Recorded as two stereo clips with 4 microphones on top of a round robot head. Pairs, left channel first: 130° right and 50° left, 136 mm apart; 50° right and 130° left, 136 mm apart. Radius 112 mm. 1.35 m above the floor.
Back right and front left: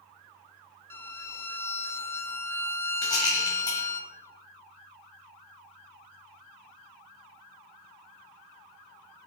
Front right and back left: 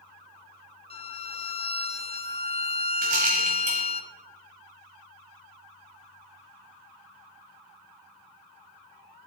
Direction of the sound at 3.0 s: 165° left.